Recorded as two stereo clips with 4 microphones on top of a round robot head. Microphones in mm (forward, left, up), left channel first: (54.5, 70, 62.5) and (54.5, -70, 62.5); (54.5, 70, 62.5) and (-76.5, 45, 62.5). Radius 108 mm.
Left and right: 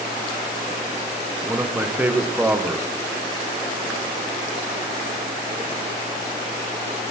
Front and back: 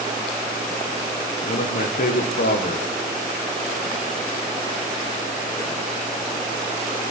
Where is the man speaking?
10° right, 1.4 m.